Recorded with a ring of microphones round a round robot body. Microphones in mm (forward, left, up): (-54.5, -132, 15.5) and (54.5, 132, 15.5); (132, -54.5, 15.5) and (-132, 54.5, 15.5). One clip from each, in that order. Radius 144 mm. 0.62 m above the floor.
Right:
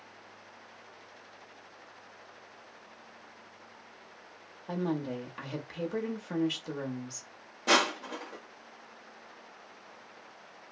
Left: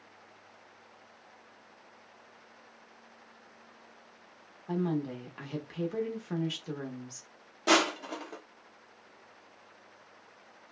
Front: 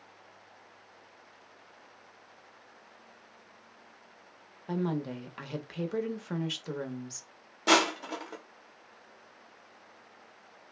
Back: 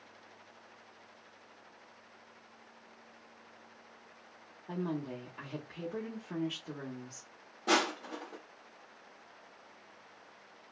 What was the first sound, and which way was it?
A woman speaking, 30° right.